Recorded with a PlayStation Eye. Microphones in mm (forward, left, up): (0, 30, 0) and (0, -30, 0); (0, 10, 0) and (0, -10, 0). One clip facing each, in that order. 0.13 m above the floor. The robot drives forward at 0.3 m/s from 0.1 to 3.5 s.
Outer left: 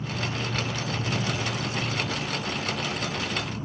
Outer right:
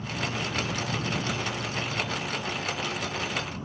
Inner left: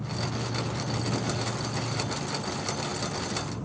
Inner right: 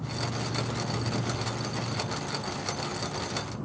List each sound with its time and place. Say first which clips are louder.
0.0 s an insect: outer left 1 dB, even; 50° left (ahead or behind), 4 m; by 3.6 s 45° left (ahead or behind), 5 m